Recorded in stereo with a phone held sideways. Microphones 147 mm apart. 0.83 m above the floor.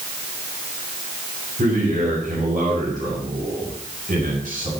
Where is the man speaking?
75° right (ahead or behind), 7 m.